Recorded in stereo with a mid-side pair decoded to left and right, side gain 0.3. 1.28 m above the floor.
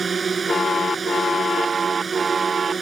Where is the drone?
55° right.